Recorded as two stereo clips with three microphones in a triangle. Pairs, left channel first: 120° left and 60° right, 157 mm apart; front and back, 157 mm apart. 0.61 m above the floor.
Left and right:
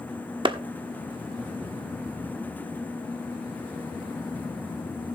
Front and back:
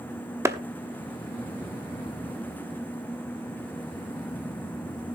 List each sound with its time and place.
0.5 s a clap: 110° right, 1.0 m